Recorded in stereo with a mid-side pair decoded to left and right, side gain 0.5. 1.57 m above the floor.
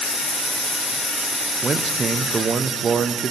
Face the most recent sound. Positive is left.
turn(degrees=-45)